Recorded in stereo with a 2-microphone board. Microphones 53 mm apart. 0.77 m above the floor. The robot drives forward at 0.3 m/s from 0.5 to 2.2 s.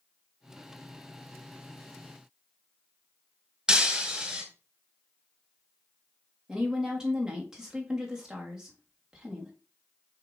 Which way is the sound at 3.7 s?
10° right (ahead or behind).